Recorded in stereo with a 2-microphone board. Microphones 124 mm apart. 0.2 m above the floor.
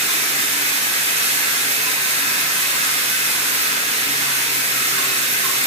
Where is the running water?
60° right (ahead or behind), 0.8 m.